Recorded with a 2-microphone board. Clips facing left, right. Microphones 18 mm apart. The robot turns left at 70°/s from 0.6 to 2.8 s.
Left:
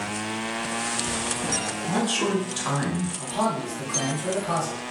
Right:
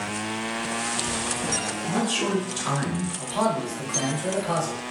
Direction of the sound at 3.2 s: 40° right (ahead or behind).